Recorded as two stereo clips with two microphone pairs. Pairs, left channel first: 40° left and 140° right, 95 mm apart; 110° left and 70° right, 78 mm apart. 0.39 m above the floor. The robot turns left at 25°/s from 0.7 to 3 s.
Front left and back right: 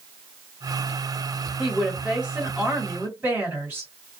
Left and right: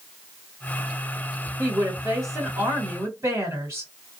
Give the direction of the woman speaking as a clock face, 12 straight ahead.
2 o'clock.